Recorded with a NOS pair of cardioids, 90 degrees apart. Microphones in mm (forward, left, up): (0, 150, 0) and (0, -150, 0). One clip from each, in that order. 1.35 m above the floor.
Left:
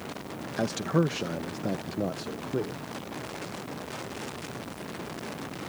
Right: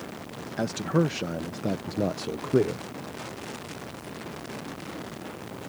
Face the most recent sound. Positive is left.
turn(degrees=-50)